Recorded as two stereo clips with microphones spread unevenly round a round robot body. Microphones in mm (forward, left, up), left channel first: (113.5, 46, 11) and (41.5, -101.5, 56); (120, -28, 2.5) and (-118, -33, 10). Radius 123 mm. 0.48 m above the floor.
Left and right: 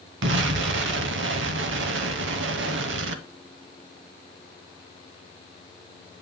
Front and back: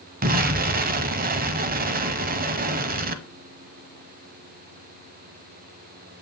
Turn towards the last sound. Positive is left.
turn(degrees=-125)